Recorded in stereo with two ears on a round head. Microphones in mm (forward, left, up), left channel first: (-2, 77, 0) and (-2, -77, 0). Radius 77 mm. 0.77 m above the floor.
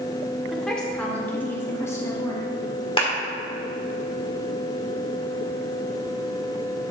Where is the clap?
30° left (ahead or behind), 2 m.